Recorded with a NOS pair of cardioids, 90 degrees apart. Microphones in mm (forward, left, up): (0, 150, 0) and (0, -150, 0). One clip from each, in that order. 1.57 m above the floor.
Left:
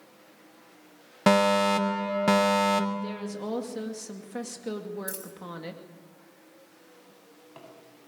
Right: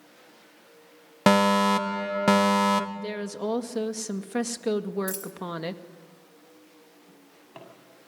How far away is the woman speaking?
About 2 m.